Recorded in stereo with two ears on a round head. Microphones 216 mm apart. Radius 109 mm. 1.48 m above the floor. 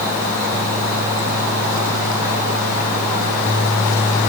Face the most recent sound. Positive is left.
No sound to turn to.